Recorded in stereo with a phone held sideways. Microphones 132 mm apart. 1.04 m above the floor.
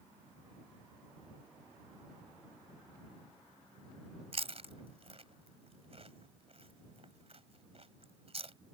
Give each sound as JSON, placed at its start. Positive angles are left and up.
{"t": 4.3, "sound": "chewing", "side_deg": -50}